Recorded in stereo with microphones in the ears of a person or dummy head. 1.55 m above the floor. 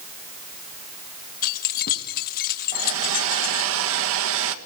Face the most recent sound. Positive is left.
turn(degrees=-75)  # may be behind; listen again after turning